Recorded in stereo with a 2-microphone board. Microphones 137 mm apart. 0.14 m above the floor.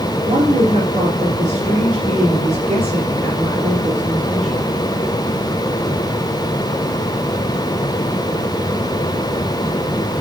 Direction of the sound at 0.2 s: 55° right (ahead or behind).